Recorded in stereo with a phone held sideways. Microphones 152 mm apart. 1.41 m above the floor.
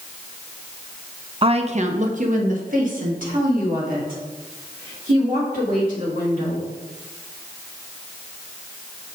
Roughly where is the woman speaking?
Right.